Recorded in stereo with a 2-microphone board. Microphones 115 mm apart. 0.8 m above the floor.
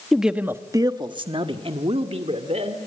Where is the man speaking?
Centre (ahead or behind), 1.0 m; by 2.8 s 70° right (ahead or behind), 2.5 m.